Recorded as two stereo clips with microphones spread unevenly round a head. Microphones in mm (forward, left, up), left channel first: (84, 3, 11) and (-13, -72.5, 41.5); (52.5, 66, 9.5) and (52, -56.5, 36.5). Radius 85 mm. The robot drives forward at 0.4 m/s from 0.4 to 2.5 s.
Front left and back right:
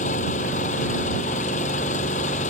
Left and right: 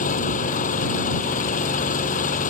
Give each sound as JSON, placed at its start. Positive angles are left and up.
{"t": 0.0, "sound": "an engine running", "azimuth_deg": 80}